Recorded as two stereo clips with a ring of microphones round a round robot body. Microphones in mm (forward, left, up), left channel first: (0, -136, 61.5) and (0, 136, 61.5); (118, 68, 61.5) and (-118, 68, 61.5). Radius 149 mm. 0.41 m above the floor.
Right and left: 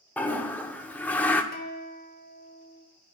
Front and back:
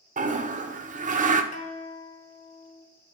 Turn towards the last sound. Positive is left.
turn(degrees=-45)